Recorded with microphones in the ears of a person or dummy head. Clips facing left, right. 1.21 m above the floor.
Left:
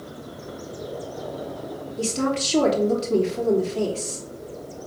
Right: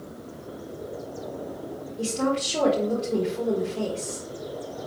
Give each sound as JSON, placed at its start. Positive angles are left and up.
{"t": 2.0, "sound": "a woman speaking", "side_deg": 65, "distance_m": 3.0}